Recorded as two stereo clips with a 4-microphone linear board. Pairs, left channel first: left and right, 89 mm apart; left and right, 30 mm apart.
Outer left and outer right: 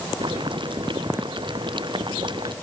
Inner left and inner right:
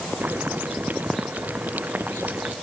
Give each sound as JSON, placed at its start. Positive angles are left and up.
{"t": 0.2, "sound": "boiling", "side_deg": -65}